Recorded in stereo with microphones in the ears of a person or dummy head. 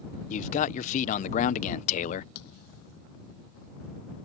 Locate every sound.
0.3 s a man speaking: 45° left (ahead or behind)
2.4 s a thud: 60° left (ahead or behind)